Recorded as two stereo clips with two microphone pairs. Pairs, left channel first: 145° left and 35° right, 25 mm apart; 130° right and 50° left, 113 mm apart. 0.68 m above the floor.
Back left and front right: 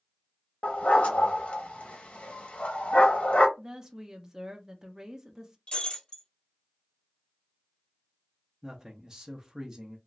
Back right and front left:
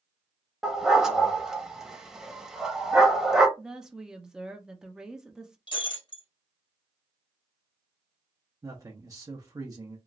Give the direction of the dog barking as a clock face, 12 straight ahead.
8 o'clock.